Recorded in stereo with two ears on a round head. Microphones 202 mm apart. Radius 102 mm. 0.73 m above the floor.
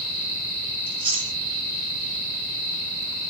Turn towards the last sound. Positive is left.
turn(degrees=-25)  # may be behind; listen again after turning